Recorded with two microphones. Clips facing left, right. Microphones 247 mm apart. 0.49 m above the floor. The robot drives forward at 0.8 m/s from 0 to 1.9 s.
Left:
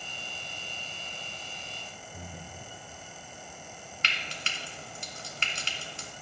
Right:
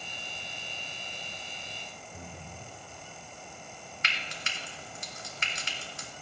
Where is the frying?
35° left (ahead or behind), 0.8 m.